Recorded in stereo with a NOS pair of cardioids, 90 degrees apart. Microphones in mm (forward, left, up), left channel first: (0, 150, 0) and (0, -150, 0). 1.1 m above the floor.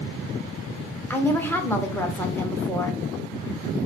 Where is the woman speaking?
5° left, 0.9 m.